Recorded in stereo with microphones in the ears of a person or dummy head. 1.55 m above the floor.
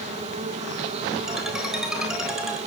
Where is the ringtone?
5° right (ahead or behind), 3.5 m.